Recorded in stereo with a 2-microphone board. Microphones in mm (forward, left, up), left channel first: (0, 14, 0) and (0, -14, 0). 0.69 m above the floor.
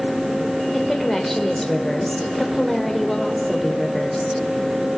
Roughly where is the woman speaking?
Centre.